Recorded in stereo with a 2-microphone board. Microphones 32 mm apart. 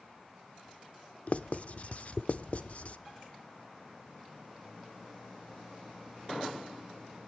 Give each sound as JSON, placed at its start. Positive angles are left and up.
{"t": 1.3, "sound": "writing", "side_deg": 45, "distance_m": 0.7}